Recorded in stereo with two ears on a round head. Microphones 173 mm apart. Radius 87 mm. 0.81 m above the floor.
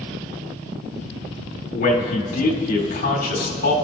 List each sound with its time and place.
1.7 s a man speaking: 50° left (ahead or behind), 3 m